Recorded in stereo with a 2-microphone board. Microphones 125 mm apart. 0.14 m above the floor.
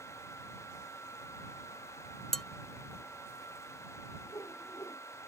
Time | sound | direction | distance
2.3 | dishes clattering | 5° left (ahead or behind) | ?
4.3 | a whoosh | 25° left (ahead or behind) | ?